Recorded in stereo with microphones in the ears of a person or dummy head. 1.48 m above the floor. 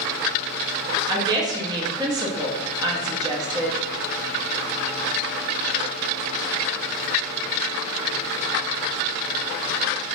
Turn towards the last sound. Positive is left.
turn(degrees=-20)  # may be behind; listen again after turning